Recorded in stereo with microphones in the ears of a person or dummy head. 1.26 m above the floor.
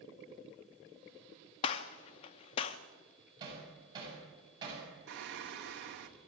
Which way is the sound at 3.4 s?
30° right (ahead or behind).